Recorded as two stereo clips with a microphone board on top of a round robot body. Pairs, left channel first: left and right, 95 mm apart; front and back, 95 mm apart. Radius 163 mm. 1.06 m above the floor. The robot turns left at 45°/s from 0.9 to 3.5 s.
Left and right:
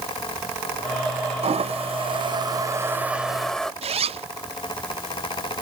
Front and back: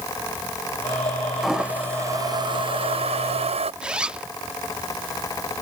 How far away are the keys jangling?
I don't hear keys jangling.